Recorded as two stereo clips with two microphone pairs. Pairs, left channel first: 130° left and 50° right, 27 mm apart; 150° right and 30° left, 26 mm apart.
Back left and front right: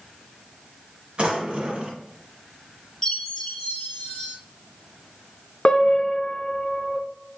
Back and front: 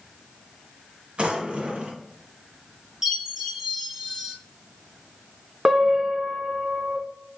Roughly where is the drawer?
Ahead.